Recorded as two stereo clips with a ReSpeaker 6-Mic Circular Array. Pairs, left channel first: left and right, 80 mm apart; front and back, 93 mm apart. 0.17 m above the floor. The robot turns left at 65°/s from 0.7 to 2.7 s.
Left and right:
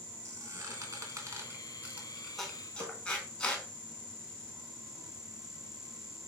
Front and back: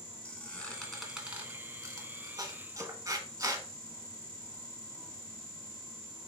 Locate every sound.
0.2 s a squeak: 70° right, 0.9 m; by 3.6 s 160° left, 0.9 m
2.8 s a snare drum: 125° right, 0.6 m